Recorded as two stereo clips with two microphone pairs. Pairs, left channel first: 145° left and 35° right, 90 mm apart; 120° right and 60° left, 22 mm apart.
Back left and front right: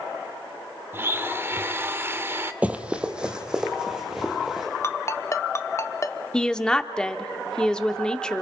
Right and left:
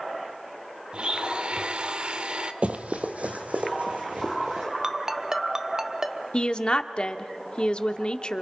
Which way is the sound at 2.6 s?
40° left.